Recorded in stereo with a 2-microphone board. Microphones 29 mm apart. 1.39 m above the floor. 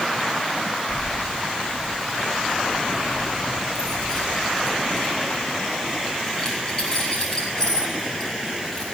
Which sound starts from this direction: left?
Keys jangling, at 0.9 s.